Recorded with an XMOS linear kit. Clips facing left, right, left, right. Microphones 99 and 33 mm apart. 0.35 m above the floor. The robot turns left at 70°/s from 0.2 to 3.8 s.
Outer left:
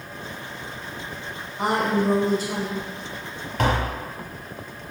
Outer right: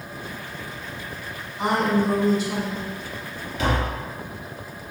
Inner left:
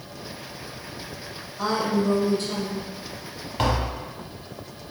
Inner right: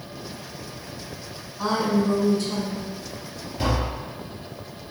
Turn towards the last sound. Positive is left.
turn(degrees=50)  # may be behind; listen again after turning